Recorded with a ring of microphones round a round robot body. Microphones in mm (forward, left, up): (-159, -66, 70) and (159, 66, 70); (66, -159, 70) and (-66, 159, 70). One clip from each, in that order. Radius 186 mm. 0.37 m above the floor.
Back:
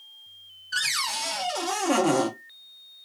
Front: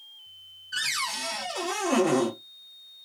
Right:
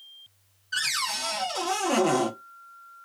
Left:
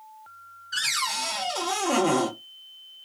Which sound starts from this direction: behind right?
A cupboard door, at 0.7 s.